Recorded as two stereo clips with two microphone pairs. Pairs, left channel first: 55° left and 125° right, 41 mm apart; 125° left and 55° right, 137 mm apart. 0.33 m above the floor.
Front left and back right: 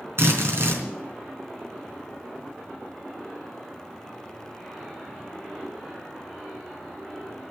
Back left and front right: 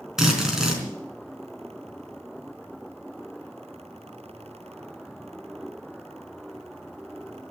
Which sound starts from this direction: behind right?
A drill, at 0.2 s.